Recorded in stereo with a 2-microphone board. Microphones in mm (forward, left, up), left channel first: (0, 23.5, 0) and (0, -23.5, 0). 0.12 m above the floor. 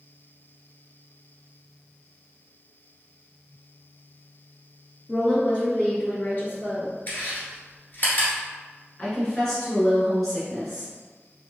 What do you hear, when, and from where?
5.1 s a woman speaking: 15° left (ahead or behind), 1.3 m; by 6.9 s 55° left (ahead or behind), 2 m
7.1 s chewing: 40° left (ahead or behind), 1.7 m
9.0 s a woman speaking: 10° left (ahead or behind), 1.6 m